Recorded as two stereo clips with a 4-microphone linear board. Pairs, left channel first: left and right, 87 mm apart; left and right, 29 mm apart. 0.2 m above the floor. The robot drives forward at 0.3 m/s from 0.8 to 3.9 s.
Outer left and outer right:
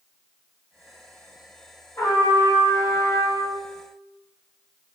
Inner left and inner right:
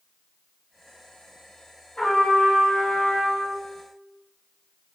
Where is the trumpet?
35° left (ahead or behind), 1.3 m; by 3.5 s 40° left (ahead or behind), 1.2 m.